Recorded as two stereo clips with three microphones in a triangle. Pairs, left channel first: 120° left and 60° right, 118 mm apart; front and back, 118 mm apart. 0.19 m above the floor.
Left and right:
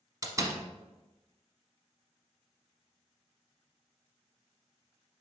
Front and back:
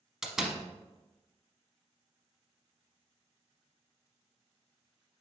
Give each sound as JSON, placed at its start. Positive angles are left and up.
{"t": 0.2, "sound": "a door slam", "azimuth_deg": -100, "distance_m": 0.9}